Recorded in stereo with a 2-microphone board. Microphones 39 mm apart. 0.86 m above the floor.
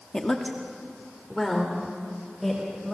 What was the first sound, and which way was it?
A woman speaking, 20° left (ahead or behind).